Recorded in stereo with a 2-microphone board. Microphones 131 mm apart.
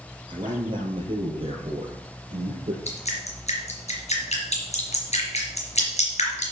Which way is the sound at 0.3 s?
35° right (ahead or behind).